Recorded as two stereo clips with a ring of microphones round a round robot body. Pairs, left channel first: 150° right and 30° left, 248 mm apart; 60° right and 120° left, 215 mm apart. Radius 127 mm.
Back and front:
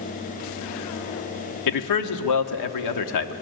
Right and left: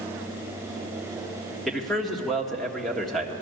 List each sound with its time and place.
1.7 s a man speaking: 150° right, 1.5 m